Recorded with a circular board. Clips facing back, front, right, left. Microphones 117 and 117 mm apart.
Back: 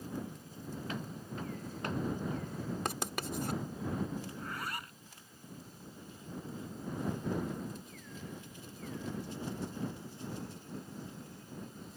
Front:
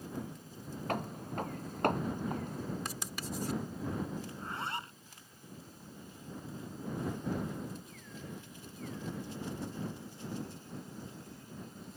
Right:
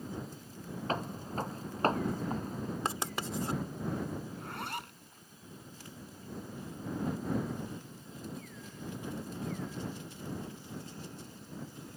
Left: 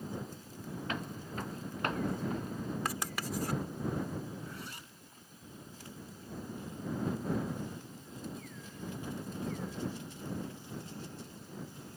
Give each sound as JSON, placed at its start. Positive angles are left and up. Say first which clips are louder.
{"t": 0.9, "sound": "footsteps", "louder": "front 9 dB, right 6 dB", "azimuth_deg": -35}
{"t": 2.9, "sound": "writing", "louder": "back 4 dB, right 1 dB", "azimuth_deg": -155}
{"t": 4.3, "sound": "a zipper", "louder": "front 2 dB, right 4 dB", "azimuth_deg": -65}